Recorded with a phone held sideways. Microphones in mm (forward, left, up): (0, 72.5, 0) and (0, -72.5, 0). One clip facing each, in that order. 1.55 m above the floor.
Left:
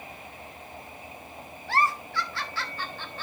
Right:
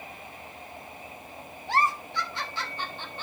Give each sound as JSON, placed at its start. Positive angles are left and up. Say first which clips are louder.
{"t": 1.7, "sound": "a giggle", "louder": "even", "side_deg": -20, "distance_m": 1.2}